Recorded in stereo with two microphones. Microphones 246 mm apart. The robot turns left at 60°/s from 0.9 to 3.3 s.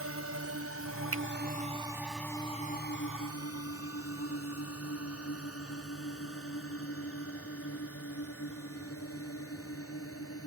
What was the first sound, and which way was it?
A drone, 65° right (ahead or behind).